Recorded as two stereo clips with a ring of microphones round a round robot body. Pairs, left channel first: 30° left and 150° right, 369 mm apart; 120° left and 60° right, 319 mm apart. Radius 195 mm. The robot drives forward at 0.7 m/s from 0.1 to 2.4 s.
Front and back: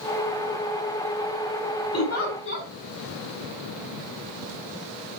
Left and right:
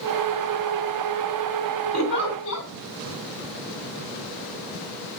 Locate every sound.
1.9 s a giggle: 80° left, 2.5 m; by 2.7 s 90° left, 2.5 m